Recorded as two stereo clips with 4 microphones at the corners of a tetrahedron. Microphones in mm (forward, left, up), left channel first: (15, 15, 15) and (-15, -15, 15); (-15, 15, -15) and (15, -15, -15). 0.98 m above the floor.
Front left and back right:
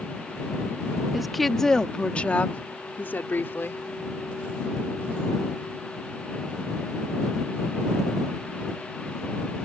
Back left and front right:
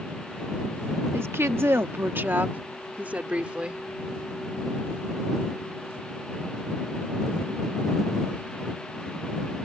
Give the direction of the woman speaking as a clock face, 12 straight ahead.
2 o'clock.